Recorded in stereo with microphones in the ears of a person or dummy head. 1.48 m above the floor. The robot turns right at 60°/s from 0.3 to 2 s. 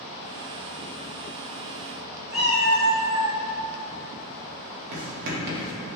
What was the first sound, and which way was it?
A cat meowing, centre (ahead or behind).